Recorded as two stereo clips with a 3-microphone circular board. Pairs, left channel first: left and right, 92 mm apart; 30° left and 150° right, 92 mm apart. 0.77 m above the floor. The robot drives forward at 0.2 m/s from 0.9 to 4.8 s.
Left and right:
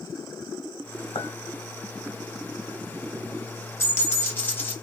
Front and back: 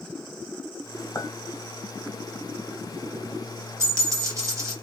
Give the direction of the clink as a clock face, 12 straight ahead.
9 o'clock.